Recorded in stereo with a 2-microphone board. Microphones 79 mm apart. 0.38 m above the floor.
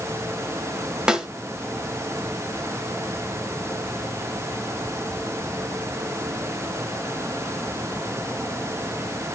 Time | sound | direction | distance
1.1 | a snare drum | 10° right (ahead or behind) | 1.2 m